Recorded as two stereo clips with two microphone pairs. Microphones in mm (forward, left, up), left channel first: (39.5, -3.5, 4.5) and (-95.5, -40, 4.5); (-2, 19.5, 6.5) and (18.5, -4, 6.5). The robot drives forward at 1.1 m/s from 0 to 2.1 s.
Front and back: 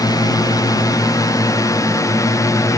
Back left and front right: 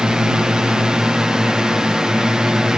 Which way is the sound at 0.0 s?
10° right.